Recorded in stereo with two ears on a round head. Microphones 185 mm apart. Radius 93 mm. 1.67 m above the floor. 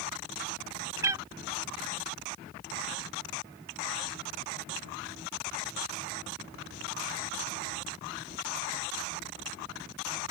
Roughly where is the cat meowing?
Centre.